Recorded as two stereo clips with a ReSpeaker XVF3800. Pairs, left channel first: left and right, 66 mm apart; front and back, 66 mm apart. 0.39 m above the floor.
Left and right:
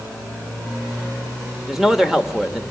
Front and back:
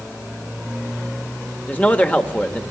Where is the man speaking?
15° right, 1.2 m.